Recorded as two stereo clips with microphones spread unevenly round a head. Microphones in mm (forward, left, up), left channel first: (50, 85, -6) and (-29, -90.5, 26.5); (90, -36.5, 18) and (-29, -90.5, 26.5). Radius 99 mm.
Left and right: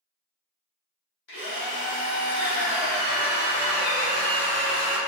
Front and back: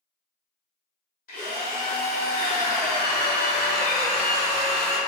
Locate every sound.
1.3 s a drill: 35° left, 0.9 m